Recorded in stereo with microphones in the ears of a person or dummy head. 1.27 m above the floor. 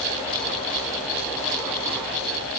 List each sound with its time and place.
Only background noise.